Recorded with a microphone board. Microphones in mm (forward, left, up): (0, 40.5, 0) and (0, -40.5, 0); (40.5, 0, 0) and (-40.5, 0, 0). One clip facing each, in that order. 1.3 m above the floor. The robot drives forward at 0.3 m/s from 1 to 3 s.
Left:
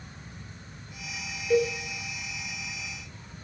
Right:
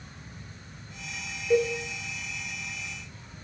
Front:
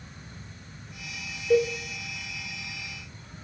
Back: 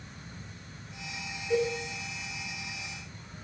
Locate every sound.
1.5 s a cowbell: 15° right, 2.0 m